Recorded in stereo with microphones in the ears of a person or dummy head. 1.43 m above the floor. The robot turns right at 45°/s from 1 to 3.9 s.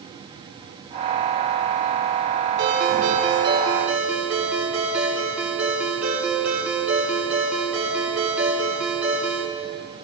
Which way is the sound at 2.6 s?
70° right.